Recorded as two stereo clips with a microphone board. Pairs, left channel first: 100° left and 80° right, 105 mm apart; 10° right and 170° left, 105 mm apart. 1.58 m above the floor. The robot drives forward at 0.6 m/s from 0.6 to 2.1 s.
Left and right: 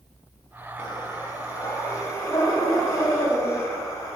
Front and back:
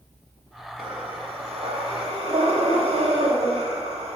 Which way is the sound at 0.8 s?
145° left.